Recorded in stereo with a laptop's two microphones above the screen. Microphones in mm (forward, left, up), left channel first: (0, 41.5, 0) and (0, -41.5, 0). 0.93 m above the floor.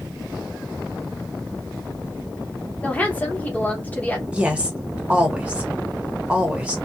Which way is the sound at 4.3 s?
15° right (ahead or behind).